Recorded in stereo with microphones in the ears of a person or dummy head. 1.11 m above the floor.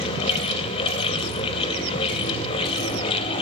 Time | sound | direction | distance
0.0 | a fan | 30° left (ahead or behind) | 0.8 m